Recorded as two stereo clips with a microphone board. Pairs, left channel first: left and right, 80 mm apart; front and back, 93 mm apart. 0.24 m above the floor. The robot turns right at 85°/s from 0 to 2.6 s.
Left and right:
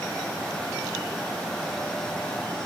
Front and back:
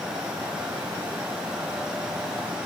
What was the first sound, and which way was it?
Only background noise.